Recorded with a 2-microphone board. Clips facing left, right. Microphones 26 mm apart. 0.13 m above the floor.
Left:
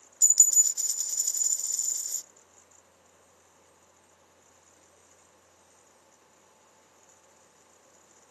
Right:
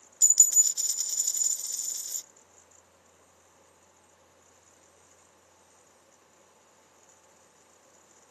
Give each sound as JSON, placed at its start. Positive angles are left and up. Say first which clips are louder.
{"t": 0.2, "sound": "a dropped coin", "louder": "even", "side_deg": -45}